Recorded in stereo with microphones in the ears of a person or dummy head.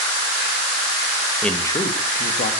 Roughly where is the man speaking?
Centre.